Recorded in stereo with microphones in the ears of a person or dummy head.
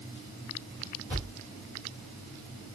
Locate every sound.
1.1 s a thud: 10° left (ahead or behind), 2.5 m